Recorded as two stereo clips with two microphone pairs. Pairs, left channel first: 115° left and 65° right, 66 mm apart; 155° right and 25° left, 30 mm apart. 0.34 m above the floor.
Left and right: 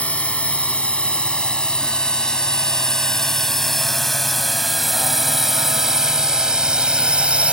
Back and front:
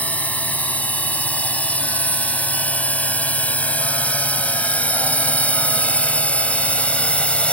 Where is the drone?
175° right; by 7.5 s 130° right.